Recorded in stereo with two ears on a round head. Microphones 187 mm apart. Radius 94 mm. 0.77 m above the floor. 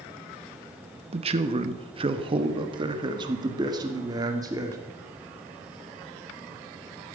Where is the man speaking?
30° right (ahead or behind), 1.1 m; by 4.8 s 20° right (ahead or behind), 2.5 m.